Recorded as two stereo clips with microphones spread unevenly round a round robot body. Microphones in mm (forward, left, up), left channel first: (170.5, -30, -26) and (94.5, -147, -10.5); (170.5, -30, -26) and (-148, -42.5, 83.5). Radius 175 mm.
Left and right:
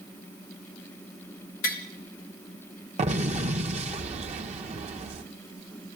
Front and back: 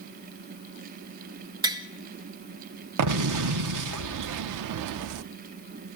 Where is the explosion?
150° right, 0.8 m.